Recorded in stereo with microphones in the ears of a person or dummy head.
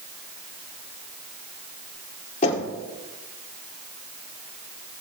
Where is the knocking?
35° left (ahead or behind), 2.5 m.